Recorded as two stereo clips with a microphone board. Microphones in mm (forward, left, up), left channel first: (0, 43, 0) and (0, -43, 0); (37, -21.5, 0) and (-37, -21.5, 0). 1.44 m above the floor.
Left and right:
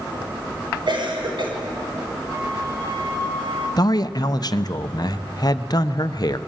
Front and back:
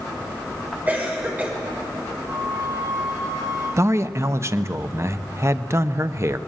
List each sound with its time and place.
0.9 s a cough: 115° right, 5.5 m
2.3 s a flute: 130° right, 9 m
3.8 s a man speaking: 130° left, 0.8 m